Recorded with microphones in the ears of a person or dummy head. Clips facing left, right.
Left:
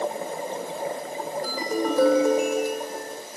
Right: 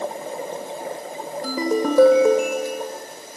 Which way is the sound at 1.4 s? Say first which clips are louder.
Right 6 dB; 65° right (ahead or behind).